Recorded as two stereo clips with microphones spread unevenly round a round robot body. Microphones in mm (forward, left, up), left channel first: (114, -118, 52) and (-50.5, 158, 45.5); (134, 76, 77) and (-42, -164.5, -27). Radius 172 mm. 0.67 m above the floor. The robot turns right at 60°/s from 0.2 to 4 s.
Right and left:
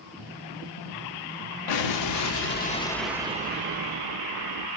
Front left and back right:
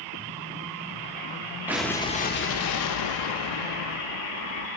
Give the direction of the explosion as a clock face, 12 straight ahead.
2 o'clock.